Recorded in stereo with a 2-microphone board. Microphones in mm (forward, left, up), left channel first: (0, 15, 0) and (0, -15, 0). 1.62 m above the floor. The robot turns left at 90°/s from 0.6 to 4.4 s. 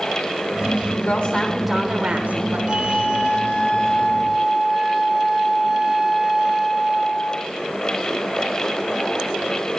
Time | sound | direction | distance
1.0 | a woman speaking | 60° left | 7 m
2.7 | a flute | 145° left | 5 m